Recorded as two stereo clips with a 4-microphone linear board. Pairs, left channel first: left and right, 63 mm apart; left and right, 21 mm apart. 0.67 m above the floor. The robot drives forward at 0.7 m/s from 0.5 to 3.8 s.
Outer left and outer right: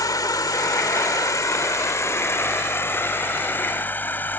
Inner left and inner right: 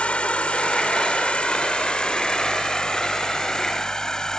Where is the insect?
80° left; by 4.4 s 30° left (ahead or behind).